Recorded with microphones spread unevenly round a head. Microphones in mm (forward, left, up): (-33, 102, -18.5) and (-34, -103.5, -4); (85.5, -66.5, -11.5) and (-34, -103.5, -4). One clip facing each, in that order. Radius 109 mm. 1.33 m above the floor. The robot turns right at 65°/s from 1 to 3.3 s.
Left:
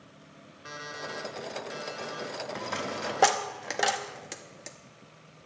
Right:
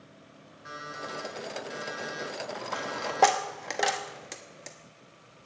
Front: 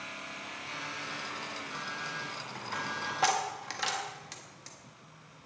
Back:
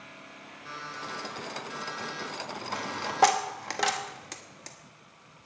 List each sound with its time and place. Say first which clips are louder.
0.7 s an alarm clock: even, back 4 dB; 140° left, 3.5 m; by 3.4 s 75° right, 3.5 m
2.5 s a dropped coin: left 1 dB, back 1 dB; 130° left, 0.9 m; by 4.8 s straight behind, 0.9 m